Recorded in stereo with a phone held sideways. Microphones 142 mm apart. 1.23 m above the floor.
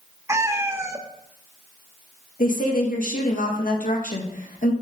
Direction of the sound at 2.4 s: 75° left (ahead or behind).